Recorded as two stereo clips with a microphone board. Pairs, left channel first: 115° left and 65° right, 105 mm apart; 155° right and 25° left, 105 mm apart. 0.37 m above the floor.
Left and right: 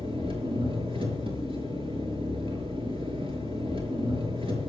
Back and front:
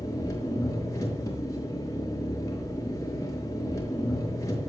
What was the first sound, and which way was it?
An engine running, 100° right.